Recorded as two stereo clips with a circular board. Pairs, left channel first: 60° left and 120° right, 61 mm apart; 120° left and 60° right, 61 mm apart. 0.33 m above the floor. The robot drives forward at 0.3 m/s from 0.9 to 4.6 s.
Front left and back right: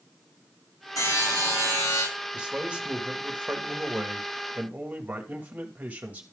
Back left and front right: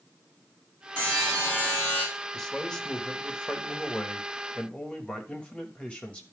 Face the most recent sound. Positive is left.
turn(degrees=-175)